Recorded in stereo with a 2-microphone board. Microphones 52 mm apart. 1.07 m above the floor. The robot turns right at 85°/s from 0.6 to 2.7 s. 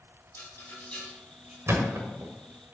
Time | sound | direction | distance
0.3 | a rattle | 50° left (ahead or behind) | 3.5 m
1.7 | a thud | 55° right (ahead or behind) | 1.4 m